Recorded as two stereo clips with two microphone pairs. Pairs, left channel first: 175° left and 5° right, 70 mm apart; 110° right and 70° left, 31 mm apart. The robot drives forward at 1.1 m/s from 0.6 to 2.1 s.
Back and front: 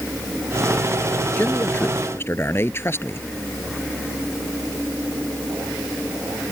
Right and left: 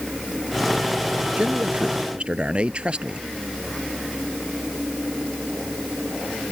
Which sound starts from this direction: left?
A man speaking, at 1.4 s.